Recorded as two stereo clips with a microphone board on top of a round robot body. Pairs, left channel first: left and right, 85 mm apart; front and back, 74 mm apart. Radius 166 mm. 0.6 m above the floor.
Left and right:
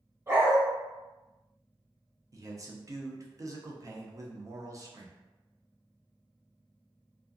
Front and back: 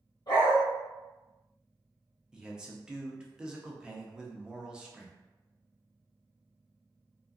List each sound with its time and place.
0.3 s a dog barking: 30° right, 1.4 m
2.3 s a man speaking: 105° right, 0.8 m